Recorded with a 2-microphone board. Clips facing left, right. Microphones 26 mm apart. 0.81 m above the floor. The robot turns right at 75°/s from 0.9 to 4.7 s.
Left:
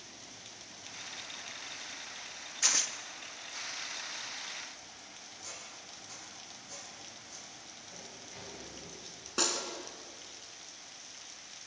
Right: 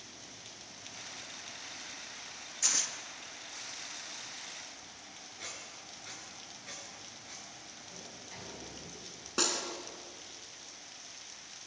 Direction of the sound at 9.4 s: 5° right (ahead or behind).